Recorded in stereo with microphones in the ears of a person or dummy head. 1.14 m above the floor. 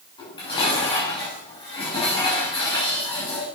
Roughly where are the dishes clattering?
Left.